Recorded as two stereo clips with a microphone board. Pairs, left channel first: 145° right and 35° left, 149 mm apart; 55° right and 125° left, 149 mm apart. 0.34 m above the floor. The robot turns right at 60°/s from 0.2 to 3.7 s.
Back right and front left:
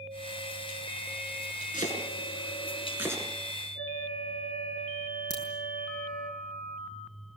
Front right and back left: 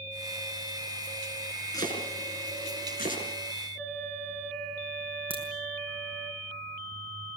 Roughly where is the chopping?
Behind right.